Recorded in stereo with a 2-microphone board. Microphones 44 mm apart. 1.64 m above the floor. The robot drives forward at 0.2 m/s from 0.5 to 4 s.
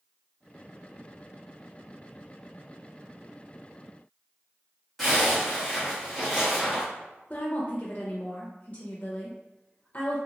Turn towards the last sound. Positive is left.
turn(degrees=40)  # may be behind; listen again after turning